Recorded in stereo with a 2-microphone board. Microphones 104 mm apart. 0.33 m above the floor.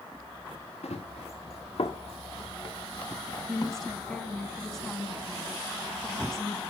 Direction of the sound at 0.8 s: 85° left.